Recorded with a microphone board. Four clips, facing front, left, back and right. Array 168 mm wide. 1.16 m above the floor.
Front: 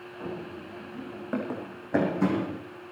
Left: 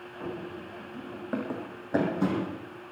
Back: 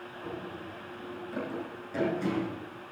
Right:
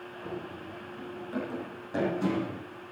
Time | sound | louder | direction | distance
0.2 | running footsteps | left 3 dB, front 3 dB | 50° left | 6 m